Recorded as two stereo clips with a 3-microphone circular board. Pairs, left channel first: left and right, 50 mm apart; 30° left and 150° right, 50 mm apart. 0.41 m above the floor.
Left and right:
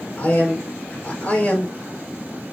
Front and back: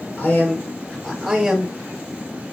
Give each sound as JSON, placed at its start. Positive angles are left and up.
{"t": 0.2, "sound": "a man speaking", "azimuth_deg": 55, "distance_m": 2.0}